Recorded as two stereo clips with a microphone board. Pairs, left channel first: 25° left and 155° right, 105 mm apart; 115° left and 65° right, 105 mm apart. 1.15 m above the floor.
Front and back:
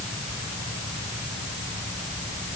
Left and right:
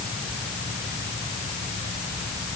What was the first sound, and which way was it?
Only background noise.